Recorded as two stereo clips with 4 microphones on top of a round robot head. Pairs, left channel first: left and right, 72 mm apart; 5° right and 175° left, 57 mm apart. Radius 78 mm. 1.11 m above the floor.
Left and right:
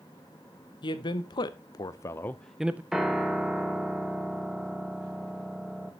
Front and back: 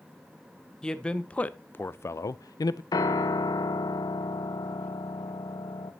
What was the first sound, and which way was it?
A man speaking, 70° left.